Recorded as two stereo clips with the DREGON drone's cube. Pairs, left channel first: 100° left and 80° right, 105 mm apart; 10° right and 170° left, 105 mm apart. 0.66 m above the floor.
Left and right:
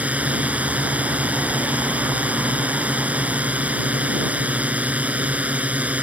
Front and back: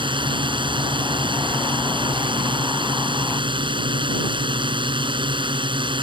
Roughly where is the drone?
Behind right.